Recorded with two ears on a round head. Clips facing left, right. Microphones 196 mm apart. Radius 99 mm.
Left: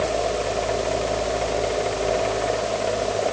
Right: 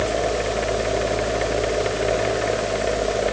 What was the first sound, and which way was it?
Only background noise.